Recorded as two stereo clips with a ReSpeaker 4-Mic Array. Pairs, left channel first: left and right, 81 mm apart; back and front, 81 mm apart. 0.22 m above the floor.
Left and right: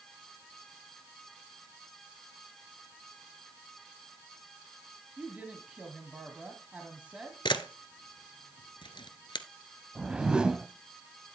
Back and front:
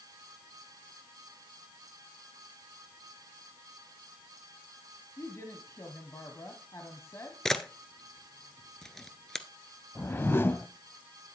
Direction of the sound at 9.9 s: 160° right.